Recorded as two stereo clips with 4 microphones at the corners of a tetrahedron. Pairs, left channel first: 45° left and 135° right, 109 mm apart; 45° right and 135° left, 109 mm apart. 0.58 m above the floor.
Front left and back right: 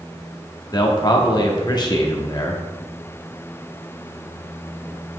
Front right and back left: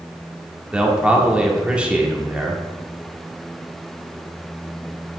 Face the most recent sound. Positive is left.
turn(degrees=60)